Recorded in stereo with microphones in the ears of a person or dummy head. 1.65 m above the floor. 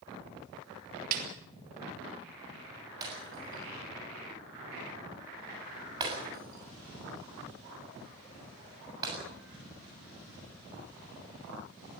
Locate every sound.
1.1 s a snare drum: 55° right (ahead or behind), 3.5 m
3.0 s breaking glass: 25° right (ahead or behind), 7 m